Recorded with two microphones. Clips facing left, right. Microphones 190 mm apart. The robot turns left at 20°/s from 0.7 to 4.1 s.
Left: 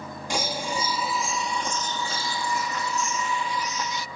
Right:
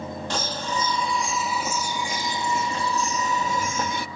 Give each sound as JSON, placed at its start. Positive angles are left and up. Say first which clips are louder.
{"t": 0.3, "sound": "a bird", "louder": "left 2 dB", "azimuth_deg": 10}